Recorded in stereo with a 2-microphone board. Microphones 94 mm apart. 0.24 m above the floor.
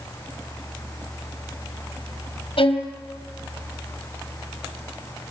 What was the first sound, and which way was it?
A violin, 70° left (ahead or behind).